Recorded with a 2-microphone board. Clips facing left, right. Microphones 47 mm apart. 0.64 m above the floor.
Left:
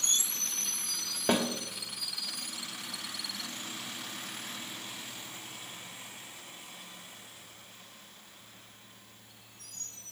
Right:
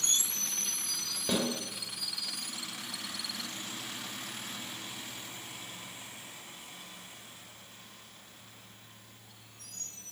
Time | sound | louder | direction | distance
1.3 | a snare drum | left 3 dB | 35° left (ahead or behind) | 2.5 m